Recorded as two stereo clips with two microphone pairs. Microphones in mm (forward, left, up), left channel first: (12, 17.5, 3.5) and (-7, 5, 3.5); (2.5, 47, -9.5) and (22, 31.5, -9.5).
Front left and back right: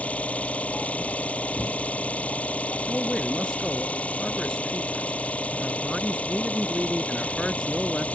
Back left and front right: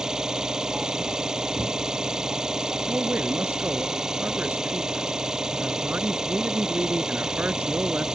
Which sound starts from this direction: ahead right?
A man speaking, at 2.9 s.